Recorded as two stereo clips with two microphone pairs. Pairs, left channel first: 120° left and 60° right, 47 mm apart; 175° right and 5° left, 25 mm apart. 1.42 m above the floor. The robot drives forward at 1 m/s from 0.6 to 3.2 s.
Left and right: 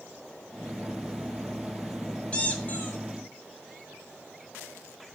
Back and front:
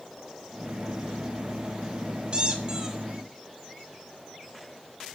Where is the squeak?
55° left, 1.9 m; by 3.0 s 80° left, 1.6 m.